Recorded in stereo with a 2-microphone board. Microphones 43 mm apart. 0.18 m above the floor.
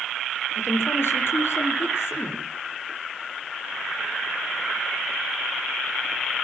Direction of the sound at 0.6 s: 70° left (ahead or behind).